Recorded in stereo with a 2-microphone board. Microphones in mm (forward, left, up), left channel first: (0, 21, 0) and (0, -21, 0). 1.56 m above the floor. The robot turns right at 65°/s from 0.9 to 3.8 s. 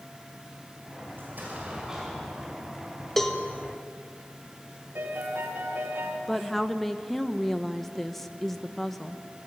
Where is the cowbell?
5° left (ahead or behind), 1.7 m; by 3.4 s 20° left (ahead or behind), 1.7 m.